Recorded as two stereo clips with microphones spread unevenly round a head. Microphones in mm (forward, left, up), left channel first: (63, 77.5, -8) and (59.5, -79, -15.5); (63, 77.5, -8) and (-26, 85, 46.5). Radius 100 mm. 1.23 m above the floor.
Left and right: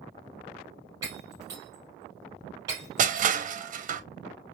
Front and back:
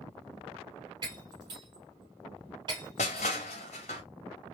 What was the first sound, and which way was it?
Breaking glass, 165° right.